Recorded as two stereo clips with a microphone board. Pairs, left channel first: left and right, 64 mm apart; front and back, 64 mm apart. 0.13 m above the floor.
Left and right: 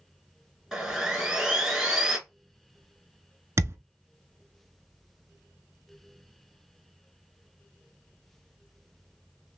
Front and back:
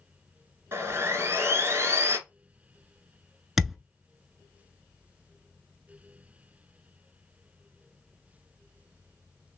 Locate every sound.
0.7 s sawing: 170° right, 1.3 m
3.6 s a thud: 95° right, 0.6 m